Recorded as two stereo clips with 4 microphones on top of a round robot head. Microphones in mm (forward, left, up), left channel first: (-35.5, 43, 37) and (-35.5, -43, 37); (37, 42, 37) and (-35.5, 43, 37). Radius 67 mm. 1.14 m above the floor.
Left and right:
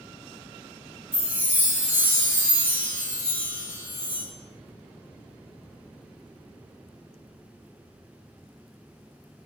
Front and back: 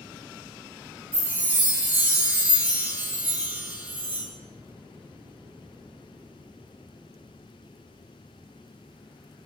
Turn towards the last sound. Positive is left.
turn(degrees=-155)